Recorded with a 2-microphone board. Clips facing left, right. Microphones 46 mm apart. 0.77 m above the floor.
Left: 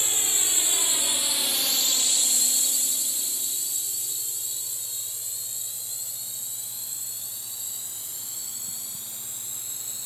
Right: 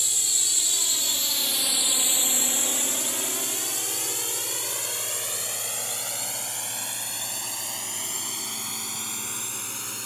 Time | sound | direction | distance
0.0 | a drone | 30° left (ahead or behind) | ?